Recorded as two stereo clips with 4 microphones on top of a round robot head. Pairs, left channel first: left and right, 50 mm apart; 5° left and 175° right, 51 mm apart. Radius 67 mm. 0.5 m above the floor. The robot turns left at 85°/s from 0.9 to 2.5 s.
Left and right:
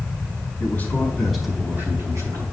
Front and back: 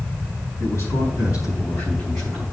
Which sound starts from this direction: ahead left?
A man speaking, at 0.6 s.